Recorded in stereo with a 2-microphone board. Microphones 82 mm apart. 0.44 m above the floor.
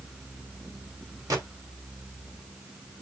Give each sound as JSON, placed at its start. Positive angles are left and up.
{"t": 1.3, "sound": "a gunshot", "side_deg": -45, "distance_m": 1.7}